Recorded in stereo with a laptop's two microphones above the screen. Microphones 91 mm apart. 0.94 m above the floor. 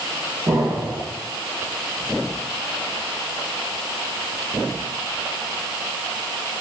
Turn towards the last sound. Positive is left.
turn(degrees=-30)  # may be behind; listen again after turning